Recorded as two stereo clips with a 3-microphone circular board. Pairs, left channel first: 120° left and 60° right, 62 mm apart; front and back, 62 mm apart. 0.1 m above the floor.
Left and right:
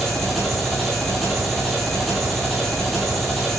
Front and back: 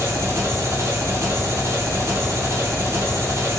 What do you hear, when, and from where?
0.0 s an engine running: 150° right, 0.9 m